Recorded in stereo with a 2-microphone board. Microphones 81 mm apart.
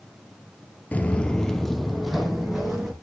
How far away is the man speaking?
No man speaking in this recording.